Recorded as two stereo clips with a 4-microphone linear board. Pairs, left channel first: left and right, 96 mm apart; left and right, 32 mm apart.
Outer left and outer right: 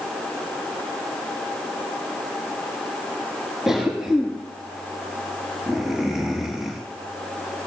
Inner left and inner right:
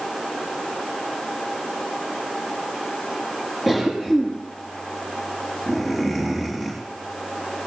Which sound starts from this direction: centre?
A cough, at 3.7 s.